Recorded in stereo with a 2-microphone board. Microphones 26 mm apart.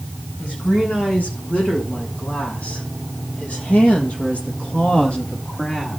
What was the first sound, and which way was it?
A woman speaking, 85° left.